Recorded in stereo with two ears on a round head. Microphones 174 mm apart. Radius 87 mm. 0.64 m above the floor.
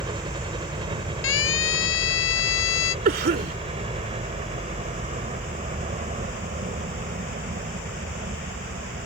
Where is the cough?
50° right (ahead or behind).